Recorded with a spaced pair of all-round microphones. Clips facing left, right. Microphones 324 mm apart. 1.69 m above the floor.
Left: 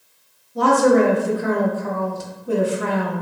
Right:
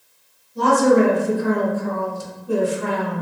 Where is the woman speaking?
70° left (ahead or behind), 0.8 m.